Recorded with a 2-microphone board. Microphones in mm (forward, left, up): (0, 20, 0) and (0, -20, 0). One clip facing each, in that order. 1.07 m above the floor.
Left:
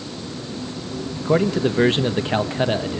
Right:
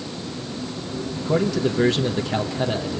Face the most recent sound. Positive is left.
turn(degrees=40)  # may be behind; listen again after turning